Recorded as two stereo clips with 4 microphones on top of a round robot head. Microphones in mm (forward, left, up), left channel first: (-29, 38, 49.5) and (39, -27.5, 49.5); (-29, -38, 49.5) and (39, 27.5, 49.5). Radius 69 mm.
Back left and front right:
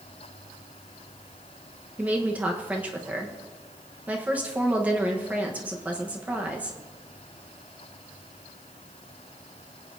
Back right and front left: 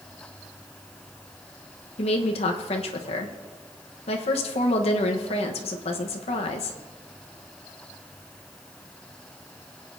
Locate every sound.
2.0 s a woman speaking: 120° right, 1.2 m